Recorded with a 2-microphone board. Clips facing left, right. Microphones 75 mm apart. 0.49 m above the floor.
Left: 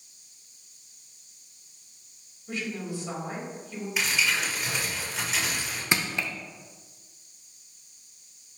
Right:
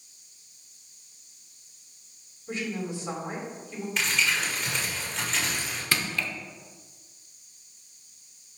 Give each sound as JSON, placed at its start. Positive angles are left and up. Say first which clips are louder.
{"t": 2.5, "sound": "a woman speaking", "louder": "right 1 dB", "side_deg": -25, "distance_m": 3.0}
{"t": 4.0, "sound": "crumpling", "louder": "even", "side_deg": 5, "distance_m": 1.8}
{"t": 5.9, "sound": "crushing", "louder": "left 1 dB", "side_deg": 20, "distance_m": 0.7}